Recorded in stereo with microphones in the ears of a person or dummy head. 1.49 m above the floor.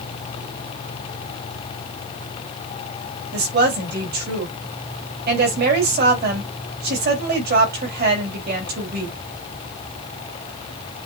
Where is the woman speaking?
50° right (ahead or behind), 3.5 m.